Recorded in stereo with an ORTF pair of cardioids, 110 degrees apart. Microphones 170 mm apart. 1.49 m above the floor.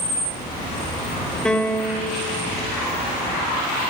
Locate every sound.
1.4 s a piano: 5° left, 1.8 m